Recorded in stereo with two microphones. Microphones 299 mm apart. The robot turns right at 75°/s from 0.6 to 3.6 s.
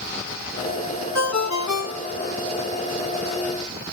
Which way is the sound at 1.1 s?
65° left.